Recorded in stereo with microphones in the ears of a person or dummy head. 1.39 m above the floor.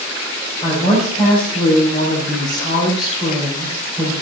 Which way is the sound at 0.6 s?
30° left (ahead or behind).